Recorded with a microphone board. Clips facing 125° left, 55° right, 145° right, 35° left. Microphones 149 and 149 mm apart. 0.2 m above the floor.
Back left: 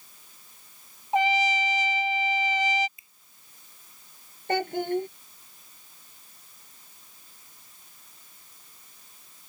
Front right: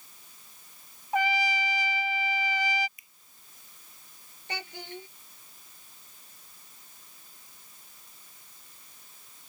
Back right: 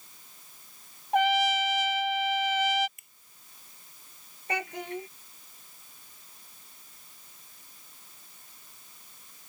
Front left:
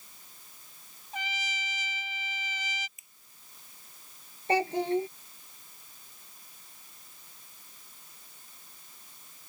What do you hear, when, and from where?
1.1 s a trumpet: 170° right
3.0 s a finger snap: 175° right
4.5 s a child speaking: 90° left